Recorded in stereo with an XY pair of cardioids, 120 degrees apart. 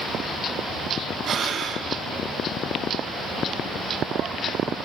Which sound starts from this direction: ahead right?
Breathing, at 1.2 s.